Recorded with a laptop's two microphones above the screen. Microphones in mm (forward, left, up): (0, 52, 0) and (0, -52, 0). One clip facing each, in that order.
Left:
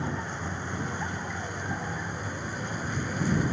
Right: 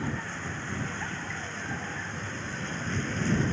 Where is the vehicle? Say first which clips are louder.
Left 1 dB; 15° left (ahead or behind); by 3.5 s 10° left (ahead or behind).